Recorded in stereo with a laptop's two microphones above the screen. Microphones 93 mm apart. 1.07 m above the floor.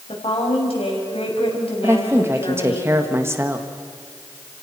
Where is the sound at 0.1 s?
80° left, 5.5 m.